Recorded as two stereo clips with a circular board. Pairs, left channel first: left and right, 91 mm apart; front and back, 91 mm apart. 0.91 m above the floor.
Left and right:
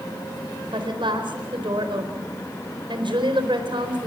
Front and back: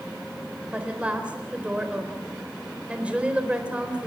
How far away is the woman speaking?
About 4 m.